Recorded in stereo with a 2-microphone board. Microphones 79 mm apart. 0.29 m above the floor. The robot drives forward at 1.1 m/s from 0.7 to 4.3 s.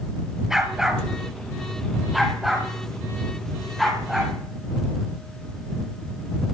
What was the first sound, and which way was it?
A dog barking, 5° right (ahead or behind).